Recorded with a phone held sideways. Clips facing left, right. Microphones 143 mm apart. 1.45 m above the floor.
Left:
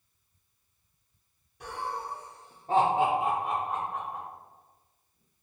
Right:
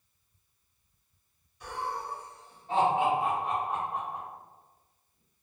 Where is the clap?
I don't hear a clap.